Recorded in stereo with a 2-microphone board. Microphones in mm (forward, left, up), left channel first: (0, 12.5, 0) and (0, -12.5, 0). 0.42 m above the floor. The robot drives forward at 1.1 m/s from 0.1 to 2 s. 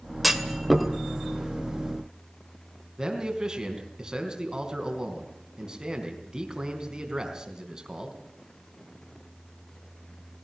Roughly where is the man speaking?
Right.